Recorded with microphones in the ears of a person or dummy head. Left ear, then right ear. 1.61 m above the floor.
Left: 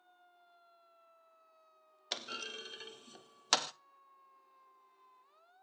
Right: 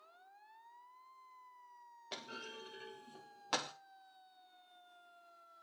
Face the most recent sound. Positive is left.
turn(degrees=65)  # may be behind; listen again after turning